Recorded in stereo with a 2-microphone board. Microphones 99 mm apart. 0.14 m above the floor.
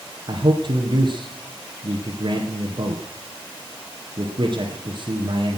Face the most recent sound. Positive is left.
turn(degrees=-55)  # may be behind; listen again after turning